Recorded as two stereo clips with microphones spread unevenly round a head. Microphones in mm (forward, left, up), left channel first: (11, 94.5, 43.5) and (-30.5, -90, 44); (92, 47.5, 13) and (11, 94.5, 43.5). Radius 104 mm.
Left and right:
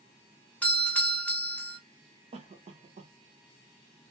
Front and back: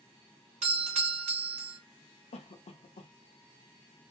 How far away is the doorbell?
About 0.6 m.